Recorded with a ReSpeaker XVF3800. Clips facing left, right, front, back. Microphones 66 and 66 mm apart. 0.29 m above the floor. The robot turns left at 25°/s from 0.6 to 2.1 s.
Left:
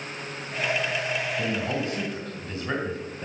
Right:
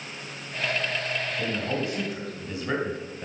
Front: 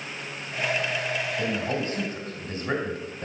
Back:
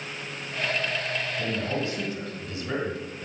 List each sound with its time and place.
1.4 s a man speaking: 5° left, 1.8 m; by 3.3 s 10° right, 1.8 m